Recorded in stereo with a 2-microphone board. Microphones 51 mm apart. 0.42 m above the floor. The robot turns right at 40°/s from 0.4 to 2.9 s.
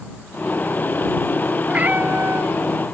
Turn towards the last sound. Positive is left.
turn(degrees=-105)